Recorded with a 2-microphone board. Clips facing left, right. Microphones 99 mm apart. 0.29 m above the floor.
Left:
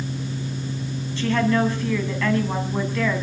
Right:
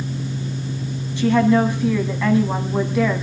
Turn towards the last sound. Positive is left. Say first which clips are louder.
# right 5 dB
turn(degrees=-15)  # may be behind; listen again after turning